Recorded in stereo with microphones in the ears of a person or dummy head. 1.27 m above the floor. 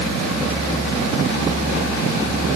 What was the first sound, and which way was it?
Only background noise.